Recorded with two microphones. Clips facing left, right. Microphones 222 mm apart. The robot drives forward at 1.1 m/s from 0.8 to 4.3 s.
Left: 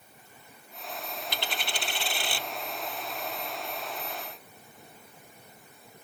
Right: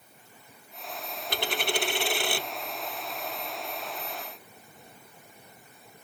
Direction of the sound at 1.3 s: 50° right (ahead or behind).